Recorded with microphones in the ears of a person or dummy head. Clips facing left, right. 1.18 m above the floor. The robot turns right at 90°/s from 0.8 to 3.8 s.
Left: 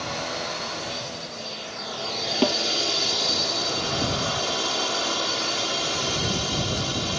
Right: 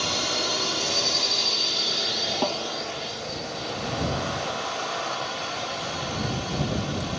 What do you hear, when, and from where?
0.0 s a drone: 130° right; by 7.2 s 140° left
2.4 s a snare drum: 40° left (ahead or behind); by 2.6 s 50° left (ahead or behind)